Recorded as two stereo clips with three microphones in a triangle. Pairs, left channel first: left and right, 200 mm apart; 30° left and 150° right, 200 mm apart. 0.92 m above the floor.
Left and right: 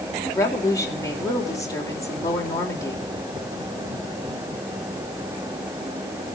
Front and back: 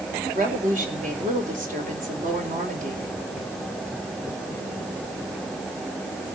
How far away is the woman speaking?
About 4 m.